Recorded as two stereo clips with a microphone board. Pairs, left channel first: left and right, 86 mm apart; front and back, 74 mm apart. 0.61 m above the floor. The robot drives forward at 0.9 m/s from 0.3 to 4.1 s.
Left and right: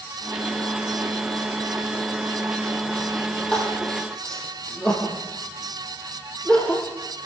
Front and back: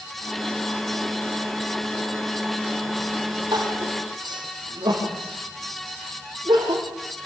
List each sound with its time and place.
3.5 s crying: 170° left, 7 m